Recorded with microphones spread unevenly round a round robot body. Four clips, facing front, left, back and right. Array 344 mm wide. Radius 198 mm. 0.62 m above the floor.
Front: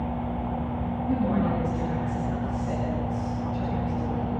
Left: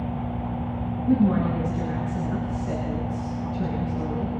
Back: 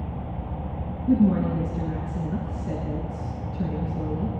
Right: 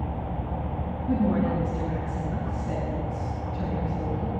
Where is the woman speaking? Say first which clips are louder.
Left 3 dB, back 5 dB; 155° left, 9 m.